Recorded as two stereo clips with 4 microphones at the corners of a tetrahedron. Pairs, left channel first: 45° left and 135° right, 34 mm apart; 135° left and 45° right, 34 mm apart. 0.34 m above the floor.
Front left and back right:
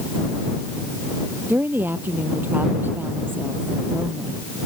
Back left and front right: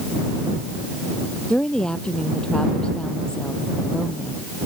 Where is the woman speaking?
160° right.